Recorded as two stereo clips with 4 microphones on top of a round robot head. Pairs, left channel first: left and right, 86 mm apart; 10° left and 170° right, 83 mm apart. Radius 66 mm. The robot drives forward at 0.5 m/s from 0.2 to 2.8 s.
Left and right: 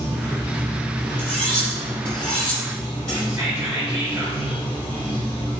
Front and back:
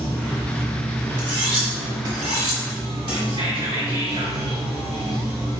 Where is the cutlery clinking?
165° left, 1.0 m; by 3.2 s 170° left, 1.8 m.